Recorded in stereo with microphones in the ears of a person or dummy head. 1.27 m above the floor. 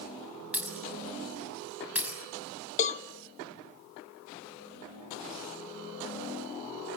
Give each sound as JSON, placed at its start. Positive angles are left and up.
{"t": 0.5, "sound": "breaking glass", "side_deg": -5, "distance_m": 6.5}
{"t": 2.8, "sound": "a cowbell", "side_deg": 35, "distance_m": 1.2}